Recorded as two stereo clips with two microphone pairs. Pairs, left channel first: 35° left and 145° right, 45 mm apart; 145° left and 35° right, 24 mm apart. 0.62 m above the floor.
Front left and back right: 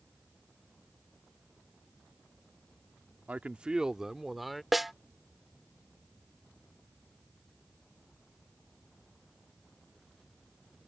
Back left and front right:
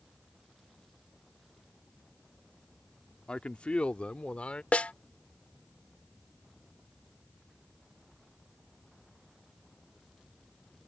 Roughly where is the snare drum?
Behind left.